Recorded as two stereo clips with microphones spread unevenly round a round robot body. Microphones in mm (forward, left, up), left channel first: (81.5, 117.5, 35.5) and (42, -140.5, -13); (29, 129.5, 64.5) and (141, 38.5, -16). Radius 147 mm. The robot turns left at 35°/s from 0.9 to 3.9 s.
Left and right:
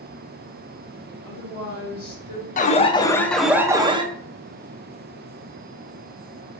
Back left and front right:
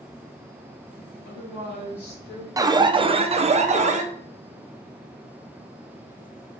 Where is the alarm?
15° left, 0.5 m; by 4.0 s 30° right, 0.5 m.